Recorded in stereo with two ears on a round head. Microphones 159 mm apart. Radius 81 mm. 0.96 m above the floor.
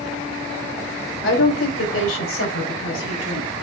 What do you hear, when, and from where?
1.2 s a woman speaking: 85° left, 3.5 m